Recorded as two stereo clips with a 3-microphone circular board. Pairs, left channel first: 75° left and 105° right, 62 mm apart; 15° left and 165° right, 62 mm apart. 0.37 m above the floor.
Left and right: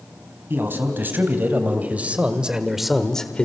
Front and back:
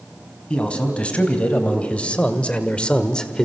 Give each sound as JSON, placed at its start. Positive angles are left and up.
{"t": 0.5, "sound": "a man speaking", "azimuth_deg": -55, "distance_m": 3.0}